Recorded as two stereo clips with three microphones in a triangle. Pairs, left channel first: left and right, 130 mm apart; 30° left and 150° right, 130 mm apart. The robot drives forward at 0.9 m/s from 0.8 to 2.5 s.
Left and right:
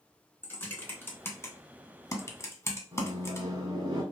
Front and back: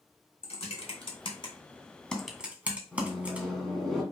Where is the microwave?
55° right, 1.3 m.